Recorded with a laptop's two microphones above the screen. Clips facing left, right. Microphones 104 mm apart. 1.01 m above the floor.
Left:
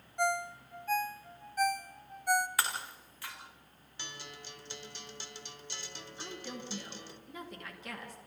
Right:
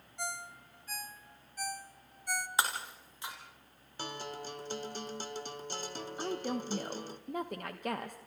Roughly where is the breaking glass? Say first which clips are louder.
Right 2 dB; right.